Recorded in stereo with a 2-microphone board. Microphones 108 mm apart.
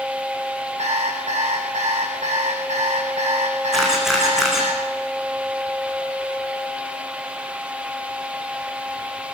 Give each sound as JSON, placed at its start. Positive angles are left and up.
{"t": 0.8, "sound": "an alarm clock", "side_deg": -75, "distance_m": 6.0}
{"t": 3.7, "sound": "a camera shutter", "side_deg": -5, "distance_m": 7.0}